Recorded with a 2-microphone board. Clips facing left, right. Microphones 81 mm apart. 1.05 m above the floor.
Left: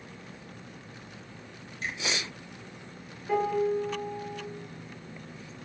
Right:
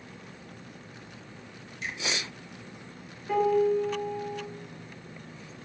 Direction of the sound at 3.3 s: 5° left (ahead or behind).